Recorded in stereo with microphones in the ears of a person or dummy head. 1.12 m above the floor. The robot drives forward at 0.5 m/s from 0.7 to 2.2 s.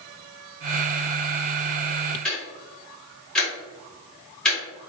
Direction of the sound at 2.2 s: 5° left (ahead or behind).